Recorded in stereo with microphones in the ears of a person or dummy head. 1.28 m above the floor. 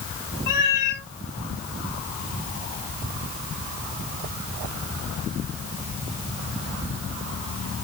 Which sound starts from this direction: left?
A cat meowing, at 0.5 s.